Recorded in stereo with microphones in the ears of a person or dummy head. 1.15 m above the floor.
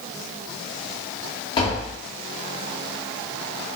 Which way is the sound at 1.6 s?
30° left (ahead or behind).